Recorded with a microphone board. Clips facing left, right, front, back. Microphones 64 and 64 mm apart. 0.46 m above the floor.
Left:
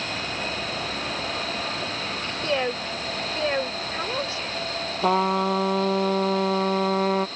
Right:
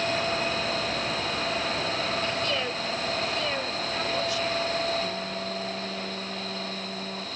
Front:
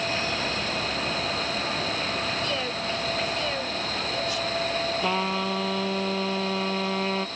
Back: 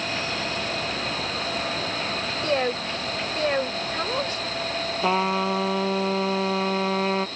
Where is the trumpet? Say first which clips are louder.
Left 11 dB, back 8 dB; 110° left.